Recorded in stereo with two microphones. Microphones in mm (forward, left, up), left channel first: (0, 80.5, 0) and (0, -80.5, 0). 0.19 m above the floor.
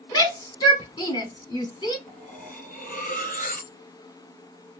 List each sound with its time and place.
0.1 s a shout: 25° left (ahead or behind), 1.5 m
2.1 s cutlery clinking: 50° left (ahead or behind), 1.8 m